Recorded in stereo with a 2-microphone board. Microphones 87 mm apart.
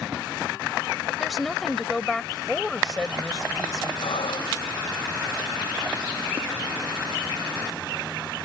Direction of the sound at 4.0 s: 75° left (ahead or behind).